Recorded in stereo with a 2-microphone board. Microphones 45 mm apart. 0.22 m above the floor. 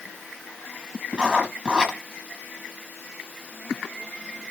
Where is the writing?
25° right (ahead or behind), 6.5 m.